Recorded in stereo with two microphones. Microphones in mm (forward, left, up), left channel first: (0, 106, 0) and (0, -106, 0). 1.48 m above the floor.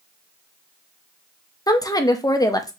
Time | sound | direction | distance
1.7 | a woman speaking | 15° left (ahead or behind) | 0.6 m